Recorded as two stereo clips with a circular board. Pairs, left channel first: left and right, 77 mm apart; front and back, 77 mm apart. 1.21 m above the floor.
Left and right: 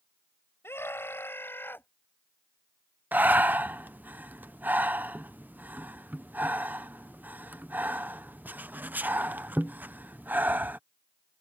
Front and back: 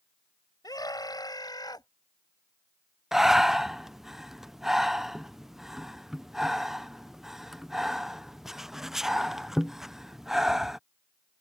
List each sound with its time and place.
0.6 s a scream: 30° left; by 1.9 s 25° left
3.1 s breathing: 105° right